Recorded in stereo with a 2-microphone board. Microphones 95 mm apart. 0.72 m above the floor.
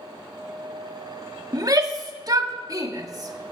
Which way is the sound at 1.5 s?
40° right (ahead or behind).